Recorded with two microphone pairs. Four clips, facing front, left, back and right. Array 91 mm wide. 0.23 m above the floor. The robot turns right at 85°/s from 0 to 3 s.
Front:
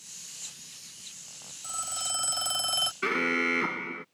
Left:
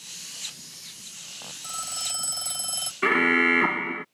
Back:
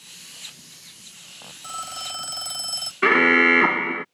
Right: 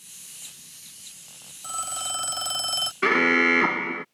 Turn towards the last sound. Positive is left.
turn(degrees=-170)